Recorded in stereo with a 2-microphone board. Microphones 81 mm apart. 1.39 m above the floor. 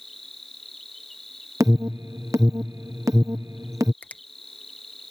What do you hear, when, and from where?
0.0 s an insect: 5° left (ahead or behind)
1.6 s an alarm: 45° right (ahead or behind)
4.0 s a finger snap: 20° left (ahead or behind)